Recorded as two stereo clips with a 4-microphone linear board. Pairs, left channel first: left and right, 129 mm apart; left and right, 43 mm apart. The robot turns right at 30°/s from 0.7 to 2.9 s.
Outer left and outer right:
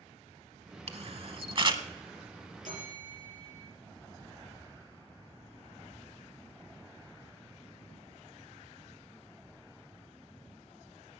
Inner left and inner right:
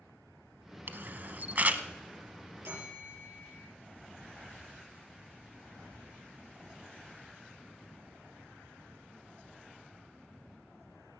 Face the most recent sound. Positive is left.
turn(degrees=-75)  # may be behind; listen again after turning